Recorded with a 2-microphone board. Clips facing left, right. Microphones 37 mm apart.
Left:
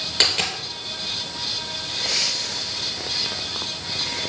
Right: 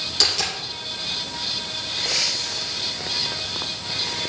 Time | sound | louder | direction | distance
0.2 | a dropped coin | left 2 dB | 40° left (ahead or behind) | 2.5 m